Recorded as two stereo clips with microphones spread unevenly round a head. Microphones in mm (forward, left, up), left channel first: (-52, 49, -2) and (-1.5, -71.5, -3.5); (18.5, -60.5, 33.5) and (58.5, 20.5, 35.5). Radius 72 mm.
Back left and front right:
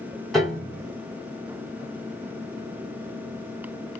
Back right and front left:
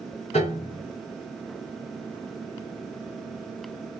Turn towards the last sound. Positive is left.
turn(degrees=-155)